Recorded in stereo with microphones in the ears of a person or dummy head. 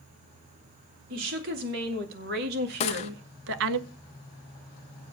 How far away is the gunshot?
About 0.9 m.